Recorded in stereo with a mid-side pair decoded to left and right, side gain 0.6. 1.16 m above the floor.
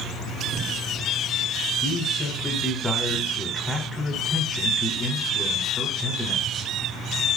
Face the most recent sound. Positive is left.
turn(degrees=10)